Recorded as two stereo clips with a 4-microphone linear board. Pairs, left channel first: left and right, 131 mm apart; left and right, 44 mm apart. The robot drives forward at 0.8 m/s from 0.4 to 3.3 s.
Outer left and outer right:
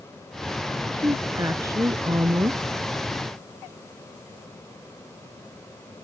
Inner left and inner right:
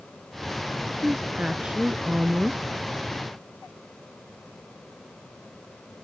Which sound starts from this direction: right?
A woman speaking, at 1.0 s.